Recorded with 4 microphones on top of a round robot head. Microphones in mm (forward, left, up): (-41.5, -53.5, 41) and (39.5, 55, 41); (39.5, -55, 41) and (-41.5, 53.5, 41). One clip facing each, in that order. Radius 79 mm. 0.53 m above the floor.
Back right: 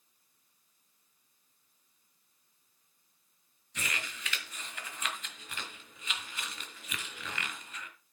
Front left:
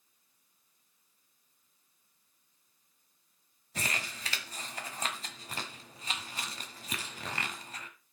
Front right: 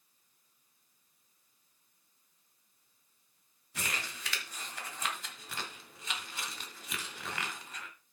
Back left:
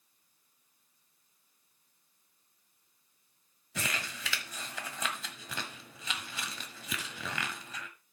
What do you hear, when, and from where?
3.8 s crumpling: 110° left, 1.4 m